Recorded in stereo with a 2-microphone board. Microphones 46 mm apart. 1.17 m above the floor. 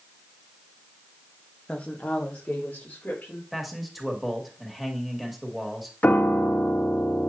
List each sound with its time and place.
1.7 s a woman speaking: 20° left (ahead or behind), 1.1 m; by 3.4 s 35° left (ahead or behind), 3.5 m
3.5 s a man speaking: centre (ahead or behind), 1.9 m
6.0 s a piano: 40° left (ahead or behind), 1.1 m